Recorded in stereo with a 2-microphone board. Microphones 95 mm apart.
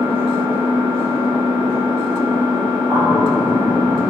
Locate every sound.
0.0 s an engine running: 55° right (ahead or behind), 1.4 m
2.9 s a bird: 45° right (ahead or behind), 1.5 m